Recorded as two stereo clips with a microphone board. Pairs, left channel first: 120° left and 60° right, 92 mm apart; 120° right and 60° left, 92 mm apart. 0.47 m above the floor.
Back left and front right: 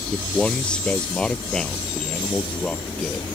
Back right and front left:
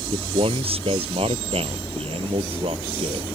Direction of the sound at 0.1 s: 40° left.